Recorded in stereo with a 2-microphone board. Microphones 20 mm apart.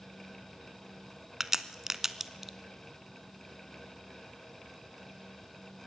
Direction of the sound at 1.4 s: 20° right (ahead or behind).